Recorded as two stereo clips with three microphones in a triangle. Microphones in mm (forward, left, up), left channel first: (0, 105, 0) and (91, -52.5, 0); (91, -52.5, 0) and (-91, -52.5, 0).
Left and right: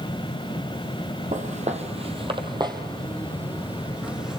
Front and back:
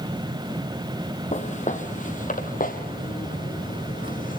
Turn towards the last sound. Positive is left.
turn(degrees=30)